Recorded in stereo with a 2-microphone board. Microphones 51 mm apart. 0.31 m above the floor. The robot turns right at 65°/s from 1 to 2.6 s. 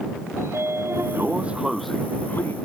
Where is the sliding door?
55° right; by 2.5 s 45° left.